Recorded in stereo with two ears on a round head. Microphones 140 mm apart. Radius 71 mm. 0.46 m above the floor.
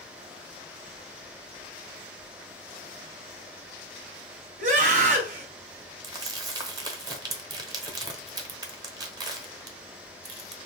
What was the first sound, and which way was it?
A scream, 50° right (ahead or behind).